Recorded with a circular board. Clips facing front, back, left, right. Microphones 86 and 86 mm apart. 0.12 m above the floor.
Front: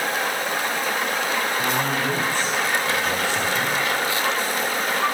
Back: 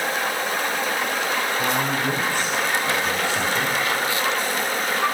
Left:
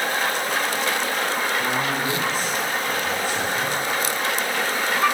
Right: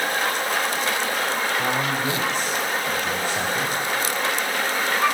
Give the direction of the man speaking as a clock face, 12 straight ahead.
3 o'clock.